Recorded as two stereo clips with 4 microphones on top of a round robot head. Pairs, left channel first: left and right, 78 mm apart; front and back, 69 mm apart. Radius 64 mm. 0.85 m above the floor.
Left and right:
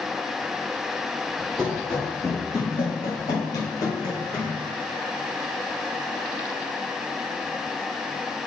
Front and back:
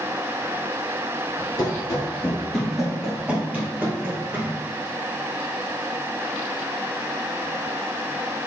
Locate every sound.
1.6 s running footsteps: 5° right, 1.1 m; by 4.5 s 125° left, 2 m